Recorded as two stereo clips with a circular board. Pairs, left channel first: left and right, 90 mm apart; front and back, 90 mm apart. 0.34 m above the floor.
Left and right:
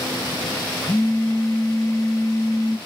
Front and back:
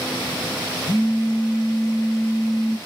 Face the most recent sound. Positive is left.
turn(degrees=40)